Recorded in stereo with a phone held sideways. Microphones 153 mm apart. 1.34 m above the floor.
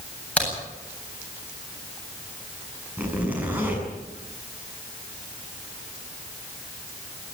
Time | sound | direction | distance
0.4 | a crack | 10° left (ahead or behind) | 9 m
3.0 | a zipper | 10° right (ahead or behind) | 6.5 m